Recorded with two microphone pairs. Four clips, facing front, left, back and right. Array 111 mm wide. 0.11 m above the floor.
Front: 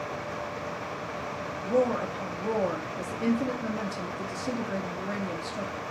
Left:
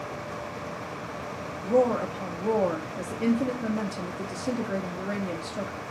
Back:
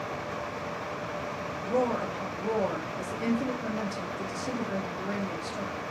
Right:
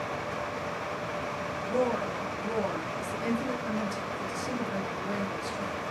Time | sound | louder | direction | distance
1.6 | a woman speaking | left 6 dB, front 2 dB | 95° left | 2.5 m